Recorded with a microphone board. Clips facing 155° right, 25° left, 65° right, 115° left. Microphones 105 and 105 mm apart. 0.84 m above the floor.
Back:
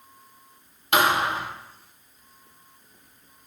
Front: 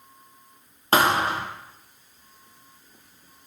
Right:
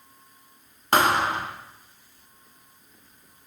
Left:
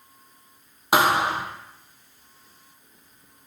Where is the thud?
35° left, 1.0 m.